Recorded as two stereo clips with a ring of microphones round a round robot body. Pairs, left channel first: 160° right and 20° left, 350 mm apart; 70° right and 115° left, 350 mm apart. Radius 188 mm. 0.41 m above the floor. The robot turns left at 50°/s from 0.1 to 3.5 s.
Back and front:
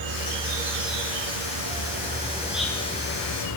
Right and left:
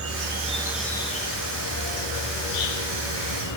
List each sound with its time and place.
0.0 s an insect: 60° left, 3.5 m; by 3.6 s 110° right, 3.5 m